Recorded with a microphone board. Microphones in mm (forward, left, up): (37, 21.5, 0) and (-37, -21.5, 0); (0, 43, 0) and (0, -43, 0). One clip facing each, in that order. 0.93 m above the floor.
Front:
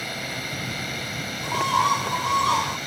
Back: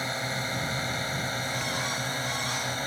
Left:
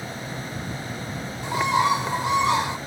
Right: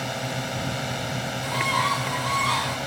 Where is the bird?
20° left.